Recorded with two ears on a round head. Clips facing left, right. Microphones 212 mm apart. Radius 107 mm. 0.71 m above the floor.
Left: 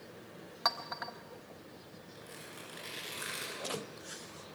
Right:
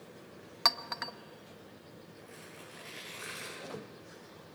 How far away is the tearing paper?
About 9.5 m.